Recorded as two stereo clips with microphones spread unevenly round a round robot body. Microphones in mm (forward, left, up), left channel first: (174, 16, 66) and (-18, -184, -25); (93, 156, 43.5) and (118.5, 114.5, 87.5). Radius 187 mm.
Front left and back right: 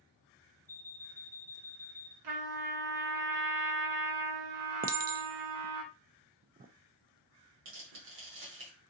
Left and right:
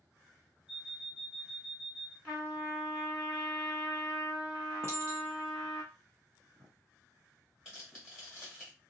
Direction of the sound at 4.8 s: 65° right.